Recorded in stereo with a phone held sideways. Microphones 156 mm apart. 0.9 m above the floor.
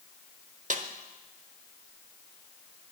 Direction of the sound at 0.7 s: 55° right (ahead or behind).